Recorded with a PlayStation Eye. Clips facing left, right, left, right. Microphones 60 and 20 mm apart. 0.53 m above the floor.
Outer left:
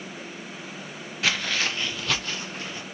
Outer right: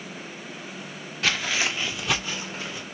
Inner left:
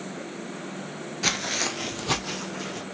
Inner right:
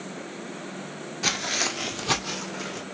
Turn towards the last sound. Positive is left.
turn(degrees=-15)  # may be behind; listen again after turning